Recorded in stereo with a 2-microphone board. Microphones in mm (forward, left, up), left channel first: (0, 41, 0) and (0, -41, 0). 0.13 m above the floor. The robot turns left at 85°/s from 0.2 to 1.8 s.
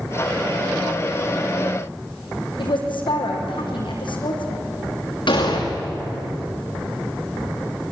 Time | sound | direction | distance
2.6 | a woman speaking | 80° left | 5.5 m
5.3 | an explosion | 75° left (ahead or behind) | 8.5 m